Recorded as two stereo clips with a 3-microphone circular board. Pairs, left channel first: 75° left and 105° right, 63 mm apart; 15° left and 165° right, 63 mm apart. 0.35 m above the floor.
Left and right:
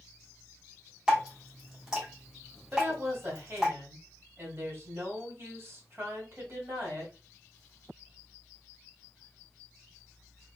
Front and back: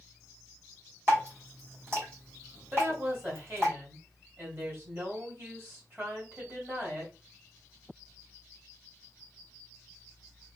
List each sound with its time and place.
1.1 s dripping: 175° right, 1.9 m
2.7 s a woman speaking: 130° right, 1.9 m